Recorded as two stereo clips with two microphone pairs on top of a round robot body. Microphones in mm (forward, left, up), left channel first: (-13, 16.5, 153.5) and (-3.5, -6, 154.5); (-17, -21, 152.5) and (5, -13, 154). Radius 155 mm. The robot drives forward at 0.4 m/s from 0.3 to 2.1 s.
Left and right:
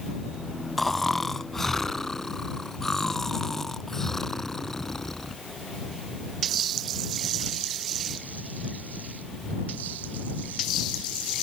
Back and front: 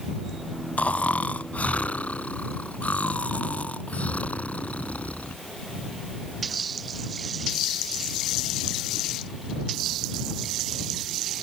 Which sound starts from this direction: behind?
Snoring, at 0.8 s.